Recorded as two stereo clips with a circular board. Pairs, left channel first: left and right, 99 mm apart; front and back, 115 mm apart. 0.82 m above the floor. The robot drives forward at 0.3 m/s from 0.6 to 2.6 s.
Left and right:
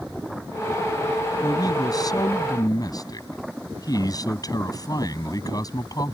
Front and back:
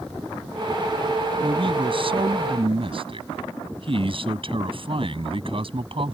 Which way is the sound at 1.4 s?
140° left.